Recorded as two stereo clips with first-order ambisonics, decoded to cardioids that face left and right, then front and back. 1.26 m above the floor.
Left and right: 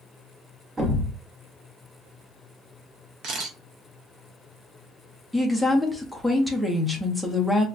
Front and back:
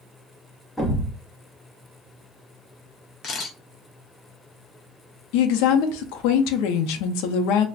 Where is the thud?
60° right, 0.5 m.